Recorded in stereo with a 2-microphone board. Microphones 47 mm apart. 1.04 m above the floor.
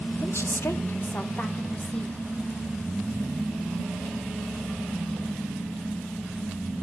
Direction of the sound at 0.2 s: 55° left (ahead or behind).